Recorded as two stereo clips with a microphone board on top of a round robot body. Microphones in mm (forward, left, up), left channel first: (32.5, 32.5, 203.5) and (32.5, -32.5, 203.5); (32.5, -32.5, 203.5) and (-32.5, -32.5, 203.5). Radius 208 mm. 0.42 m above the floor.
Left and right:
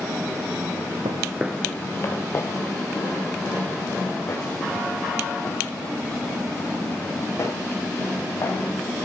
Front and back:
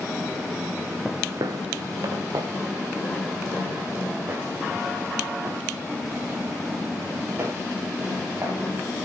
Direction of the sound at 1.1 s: 95° right.